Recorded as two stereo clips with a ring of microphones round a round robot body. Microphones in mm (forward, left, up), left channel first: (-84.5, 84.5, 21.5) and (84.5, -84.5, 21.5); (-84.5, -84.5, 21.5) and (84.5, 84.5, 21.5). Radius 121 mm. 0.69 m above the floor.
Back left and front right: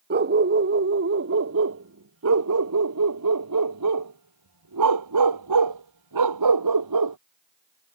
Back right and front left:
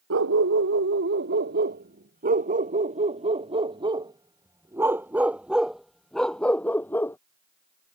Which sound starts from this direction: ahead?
A dog barking, at 0.1 s.